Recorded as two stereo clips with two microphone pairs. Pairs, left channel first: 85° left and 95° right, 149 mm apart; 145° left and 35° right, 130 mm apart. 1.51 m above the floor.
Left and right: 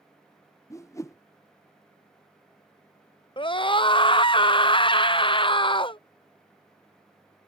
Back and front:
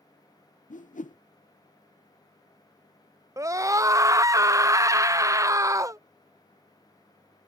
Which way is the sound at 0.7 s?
150° left.